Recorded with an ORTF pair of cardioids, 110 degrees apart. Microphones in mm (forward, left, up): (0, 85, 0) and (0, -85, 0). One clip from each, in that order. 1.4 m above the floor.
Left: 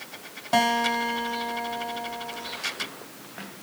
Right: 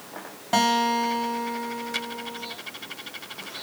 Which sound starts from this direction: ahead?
A guitar, at 0.5 s.